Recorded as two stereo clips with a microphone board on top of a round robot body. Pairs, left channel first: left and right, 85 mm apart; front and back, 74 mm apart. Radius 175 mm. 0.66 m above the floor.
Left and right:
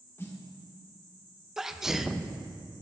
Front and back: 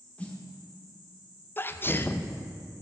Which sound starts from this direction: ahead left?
A snare drum, at 0.2 s.